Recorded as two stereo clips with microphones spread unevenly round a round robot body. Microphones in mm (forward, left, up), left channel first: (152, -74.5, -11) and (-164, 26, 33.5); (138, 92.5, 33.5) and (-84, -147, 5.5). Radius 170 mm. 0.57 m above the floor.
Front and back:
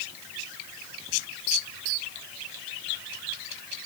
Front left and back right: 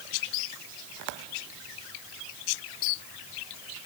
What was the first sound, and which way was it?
Only background noise.